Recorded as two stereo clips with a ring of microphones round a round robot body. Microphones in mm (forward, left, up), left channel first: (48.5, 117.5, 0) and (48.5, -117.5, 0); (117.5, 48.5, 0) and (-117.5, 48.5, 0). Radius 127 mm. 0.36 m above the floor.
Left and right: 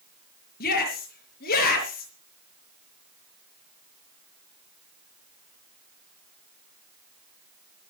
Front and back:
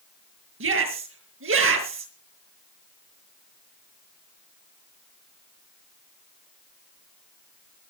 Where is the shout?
145° left, 5.5 m.